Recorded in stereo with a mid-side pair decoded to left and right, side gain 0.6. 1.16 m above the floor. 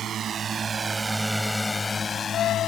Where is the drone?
45° right; by 2.7 s 50° left.